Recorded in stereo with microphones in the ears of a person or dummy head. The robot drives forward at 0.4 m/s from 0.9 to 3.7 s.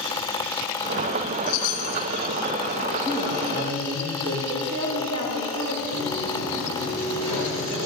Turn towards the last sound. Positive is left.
turn(degrees=-75)  # may be behind; listen again after turning